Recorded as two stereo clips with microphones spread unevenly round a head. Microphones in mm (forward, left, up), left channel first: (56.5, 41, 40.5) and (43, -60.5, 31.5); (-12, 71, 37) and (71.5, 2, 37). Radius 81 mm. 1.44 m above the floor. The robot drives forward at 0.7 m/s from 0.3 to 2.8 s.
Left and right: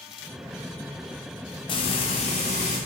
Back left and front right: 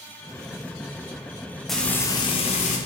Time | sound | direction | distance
1.7 | frying | 50° left | 0.6 m